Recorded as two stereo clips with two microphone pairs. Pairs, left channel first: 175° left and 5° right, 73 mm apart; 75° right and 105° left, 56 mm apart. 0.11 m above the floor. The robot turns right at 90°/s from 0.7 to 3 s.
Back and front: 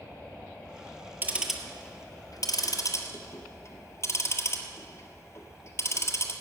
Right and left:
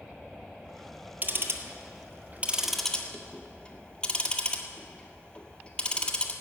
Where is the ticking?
50° left, 1.5 m; by 6.3 s 150° right, 1.5 m.